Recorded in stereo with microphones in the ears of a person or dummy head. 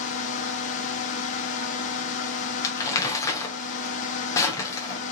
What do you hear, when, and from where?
0.0 s a fan: 40° left (ahead or behind), 1.1 m
2.6 s crumpling: 20° left (ahead or behind), 1.0 m